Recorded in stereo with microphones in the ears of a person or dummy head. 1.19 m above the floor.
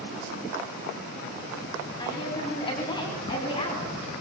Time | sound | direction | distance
2.0 | a woman speaking | 25° left (ahead or behind) | 10 m